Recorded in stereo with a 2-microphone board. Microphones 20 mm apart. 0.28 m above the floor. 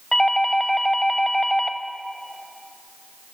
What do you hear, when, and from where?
0.1 s a doorbell: 25° left (ahead or behind), 1.6 m